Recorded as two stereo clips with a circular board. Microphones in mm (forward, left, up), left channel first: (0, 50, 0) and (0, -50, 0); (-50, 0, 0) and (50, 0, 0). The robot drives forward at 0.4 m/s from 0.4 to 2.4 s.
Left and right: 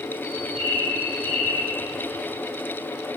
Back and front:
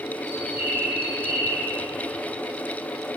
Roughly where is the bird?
Right.